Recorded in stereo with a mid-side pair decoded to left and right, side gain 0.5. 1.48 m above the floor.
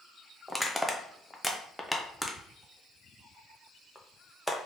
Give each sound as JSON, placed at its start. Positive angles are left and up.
{"t": 0.5, "sound": "crushing", "azimuth_deg": 5, "distance_m": 0.7}